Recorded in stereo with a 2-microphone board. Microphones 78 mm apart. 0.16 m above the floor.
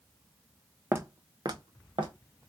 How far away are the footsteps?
About 0.6 m.